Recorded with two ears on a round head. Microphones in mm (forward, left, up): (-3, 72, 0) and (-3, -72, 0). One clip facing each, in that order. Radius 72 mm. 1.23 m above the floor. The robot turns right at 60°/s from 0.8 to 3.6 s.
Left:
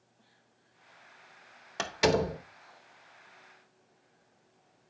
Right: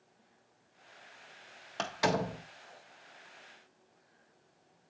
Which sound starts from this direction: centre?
A door slam, at 1.8 s.